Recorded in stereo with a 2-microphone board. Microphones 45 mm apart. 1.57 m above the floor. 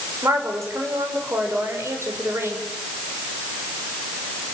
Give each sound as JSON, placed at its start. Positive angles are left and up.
{"t": 0.2, "sound": "a woman speaking", "side_deg": -80, "distance_m": 6.5}